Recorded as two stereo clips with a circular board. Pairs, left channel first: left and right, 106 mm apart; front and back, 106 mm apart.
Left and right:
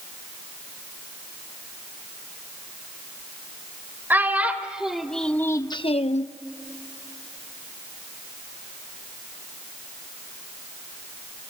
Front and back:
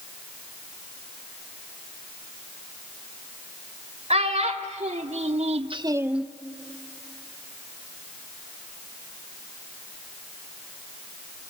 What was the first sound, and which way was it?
A child speaking, 165° right.